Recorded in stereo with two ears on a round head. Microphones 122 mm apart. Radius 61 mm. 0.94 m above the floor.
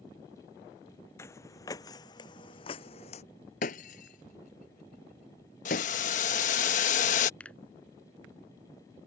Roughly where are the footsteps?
Centre.